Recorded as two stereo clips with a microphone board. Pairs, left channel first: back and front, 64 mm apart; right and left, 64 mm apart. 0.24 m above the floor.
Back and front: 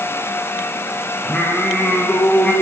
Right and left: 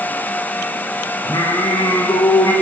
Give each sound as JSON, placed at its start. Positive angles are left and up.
{"t": 1.2, "sound": "singing", "azimuth_deg": -110, "distance_m": 8.5}